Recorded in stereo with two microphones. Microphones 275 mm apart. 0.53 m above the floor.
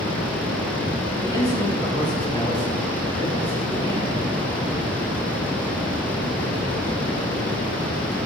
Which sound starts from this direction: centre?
A man speaking, at 1.2 s.